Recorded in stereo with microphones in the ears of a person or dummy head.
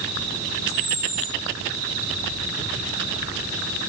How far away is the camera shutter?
About 0.7 m.